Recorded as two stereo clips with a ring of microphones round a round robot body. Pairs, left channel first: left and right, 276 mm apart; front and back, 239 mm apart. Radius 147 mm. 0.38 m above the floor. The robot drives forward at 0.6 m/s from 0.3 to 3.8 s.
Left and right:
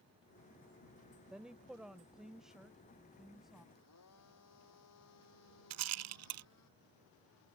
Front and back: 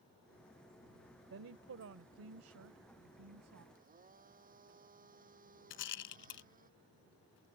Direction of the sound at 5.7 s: 50° right.